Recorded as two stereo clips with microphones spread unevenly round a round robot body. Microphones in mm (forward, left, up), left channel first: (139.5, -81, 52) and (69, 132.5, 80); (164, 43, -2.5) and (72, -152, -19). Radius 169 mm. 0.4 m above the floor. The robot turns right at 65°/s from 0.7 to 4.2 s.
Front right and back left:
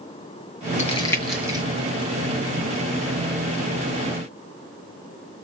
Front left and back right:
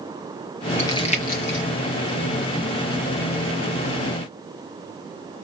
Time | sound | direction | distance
0.8 | crumpling | 15° right | 2.5 m